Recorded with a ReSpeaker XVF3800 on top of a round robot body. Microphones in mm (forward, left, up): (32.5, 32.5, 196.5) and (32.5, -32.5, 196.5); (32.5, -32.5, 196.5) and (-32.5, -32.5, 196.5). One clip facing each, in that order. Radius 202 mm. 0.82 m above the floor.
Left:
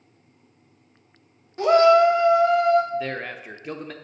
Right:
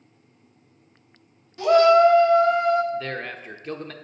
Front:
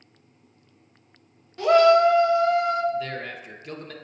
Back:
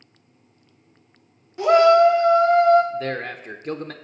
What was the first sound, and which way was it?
A shout, 115° left.